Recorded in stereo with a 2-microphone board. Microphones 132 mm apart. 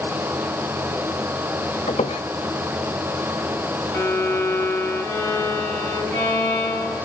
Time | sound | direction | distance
1.9 | a squeak | 65° left (ahead or behind) | 1.4 m
3.9 | a violin | 10° left (ahead or behind) | 4 m